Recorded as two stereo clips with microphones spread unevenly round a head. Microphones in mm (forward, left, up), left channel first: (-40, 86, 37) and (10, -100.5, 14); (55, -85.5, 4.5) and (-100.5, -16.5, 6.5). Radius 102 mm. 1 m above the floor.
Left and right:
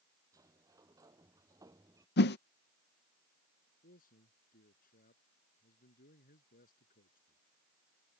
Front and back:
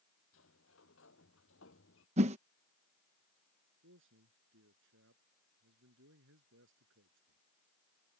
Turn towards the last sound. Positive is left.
turn(degrees=150)